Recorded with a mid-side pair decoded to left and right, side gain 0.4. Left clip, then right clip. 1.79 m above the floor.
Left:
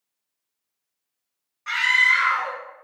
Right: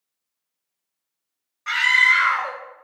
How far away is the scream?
About 0.8 m.